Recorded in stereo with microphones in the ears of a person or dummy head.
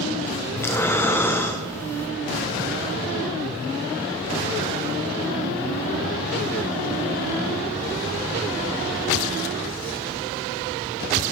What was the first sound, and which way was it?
Breathing, 10° left (ahead or behind).